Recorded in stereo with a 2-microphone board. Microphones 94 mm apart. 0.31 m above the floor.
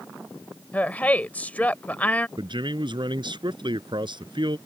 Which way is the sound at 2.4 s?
55° right (ahead or behind).